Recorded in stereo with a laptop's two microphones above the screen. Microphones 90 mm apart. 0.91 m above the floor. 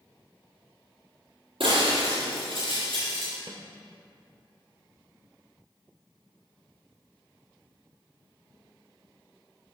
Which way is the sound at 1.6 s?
70° right (ahead or behind).